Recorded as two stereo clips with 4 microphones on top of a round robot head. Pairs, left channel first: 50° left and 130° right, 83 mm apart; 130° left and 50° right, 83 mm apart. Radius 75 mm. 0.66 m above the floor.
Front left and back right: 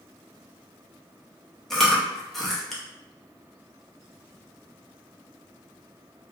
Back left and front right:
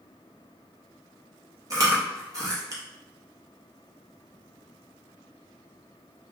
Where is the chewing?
35° right, 1.0 m.